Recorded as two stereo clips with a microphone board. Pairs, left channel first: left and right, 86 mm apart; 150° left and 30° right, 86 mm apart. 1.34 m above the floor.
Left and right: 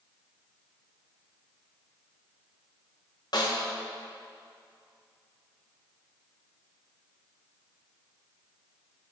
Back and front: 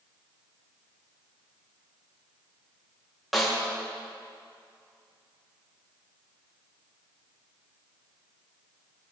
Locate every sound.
3.3 s a snare drum: 60° left, 1.5 m